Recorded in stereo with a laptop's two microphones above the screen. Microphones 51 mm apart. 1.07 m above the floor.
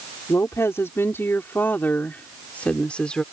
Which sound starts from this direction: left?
A woman speaking, at 0.3 s.